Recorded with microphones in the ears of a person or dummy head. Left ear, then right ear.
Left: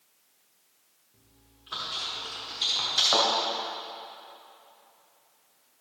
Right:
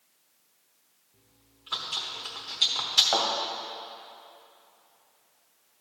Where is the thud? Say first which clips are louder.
Left 2 dB; 10° right (ahead or behind), 1.7 m.